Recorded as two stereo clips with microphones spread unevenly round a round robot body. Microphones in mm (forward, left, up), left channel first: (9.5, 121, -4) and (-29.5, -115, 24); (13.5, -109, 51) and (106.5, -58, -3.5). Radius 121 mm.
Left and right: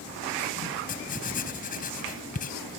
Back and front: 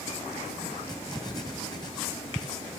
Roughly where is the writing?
Behind left.